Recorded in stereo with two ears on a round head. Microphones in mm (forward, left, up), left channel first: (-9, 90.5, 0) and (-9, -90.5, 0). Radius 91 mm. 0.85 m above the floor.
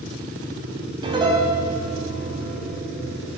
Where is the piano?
25° right (ahead or behind), 4 m.